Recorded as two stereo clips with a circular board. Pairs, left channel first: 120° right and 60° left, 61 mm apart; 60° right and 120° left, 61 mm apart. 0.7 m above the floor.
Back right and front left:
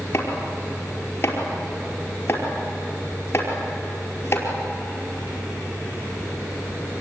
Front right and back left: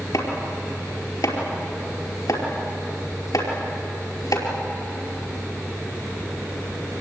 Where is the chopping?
65° right, 5 m.